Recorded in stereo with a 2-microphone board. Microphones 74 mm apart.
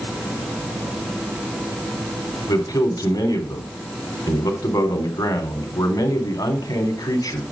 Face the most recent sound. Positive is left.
turn(degrees=65)  # may be behind; listen again after turning